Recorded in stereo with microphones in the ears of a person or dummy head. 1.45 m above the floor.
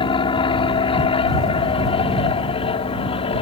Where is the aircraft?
35° left (ahead or behind).